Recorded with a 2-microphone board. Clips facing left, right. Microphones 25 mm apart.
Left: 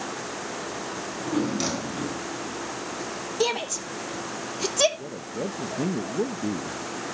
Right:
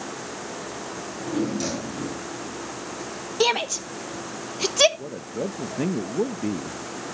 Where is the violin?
I don't hear a violin.